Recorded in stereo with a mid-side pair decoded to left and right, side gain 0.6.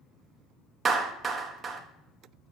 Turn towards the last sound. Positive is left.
turn(degrees=-35)